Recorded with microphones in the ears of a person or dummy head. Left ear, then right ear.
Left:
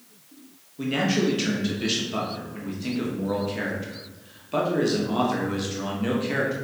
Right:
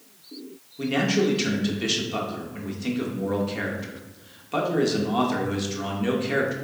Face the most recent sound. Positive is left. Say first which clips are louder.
# right 1 dB
turn(degrees=-5)  # may be behind; listen again after turning